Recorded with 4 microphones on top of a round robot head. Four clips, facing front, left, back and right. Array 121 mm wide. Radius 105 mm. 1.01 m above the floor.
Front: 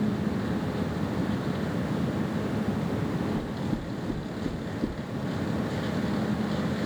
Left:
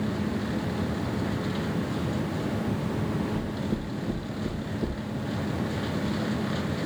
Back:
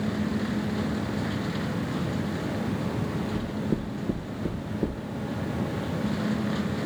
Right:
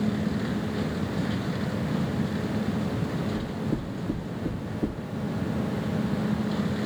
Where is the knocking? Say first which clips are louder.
Even, back 2 dB; 175° right, 3 m.